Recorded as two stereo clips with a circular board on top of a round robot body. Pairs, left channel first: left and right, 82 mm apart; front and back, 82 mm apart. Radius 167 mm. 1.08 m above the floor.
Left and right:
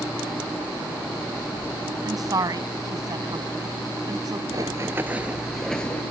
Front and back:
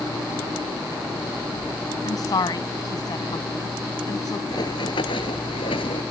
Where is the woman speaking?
45° right.